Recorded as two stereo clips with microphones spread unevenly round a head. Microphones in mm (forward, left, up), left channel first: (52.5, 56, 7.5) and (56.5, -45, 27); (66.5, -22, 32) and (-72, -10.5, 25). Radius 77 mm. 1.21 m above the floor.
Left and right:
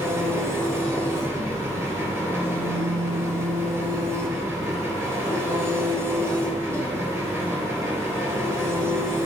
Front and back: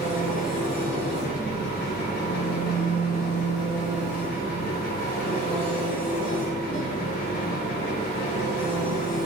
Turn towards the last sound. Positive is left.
turn(degrees=-20)